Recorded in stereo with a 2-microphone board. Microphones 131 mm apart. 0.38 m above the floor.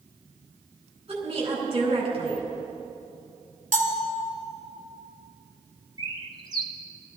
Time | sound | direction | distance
1.1 | a woman speaking | 45° right (ahead or behind) | 4 m
3.7 | a bell | 80° right | 1.6 m
6.0 | a bird | 35° right (ahead or behind) | 1.0 m